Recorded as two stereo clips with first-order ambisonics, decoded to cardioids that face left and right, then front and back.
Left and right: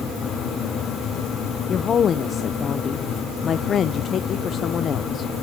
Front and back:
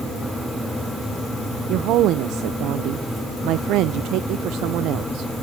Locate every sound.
1.7 s a woman speaking: 150° left, 0.6 m